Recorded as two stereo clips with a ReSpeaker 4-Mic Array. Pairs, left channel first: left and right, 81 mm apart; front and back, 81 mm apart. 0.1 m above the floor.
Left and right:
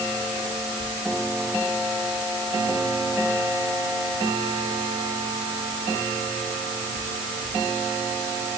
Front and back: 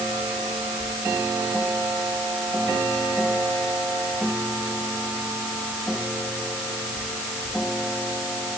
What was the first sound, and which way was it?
Only background noise.